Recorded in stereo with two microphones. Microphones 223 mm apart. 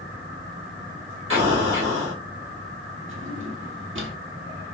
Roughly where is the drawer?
Right.